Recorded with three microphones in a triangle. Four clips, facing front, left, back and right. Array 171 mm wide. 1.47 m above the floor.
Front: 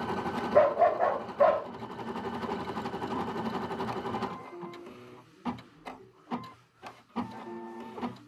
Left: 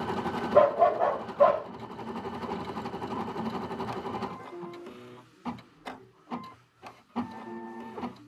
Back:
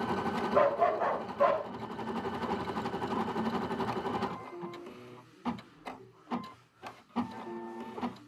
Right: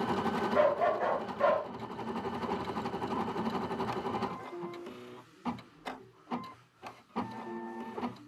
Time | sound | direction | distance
0.5 | a dog barking | 50° left | 3 m